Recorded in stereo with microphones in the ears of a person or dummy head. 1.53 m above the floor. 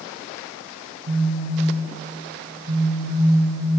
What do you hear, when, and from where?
1.1 s a phone buzzing: 35° right (ahead or behind), 1.2 m